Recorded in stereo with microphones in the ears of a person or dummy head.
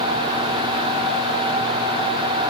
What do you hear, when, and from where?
Only background noise.